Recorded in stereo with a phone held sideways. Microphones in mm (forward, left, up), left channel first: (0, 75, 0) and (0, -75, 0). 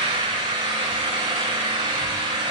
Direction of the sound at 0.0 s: 35° right (ahead or behind).